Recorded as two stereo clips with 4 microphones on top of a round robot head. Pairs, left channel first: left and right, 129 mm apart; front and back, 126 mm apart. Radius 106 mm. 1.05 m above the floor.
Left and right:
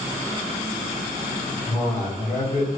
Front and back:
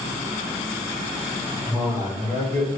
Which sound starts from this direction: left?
A man speaking, at 1.7 s.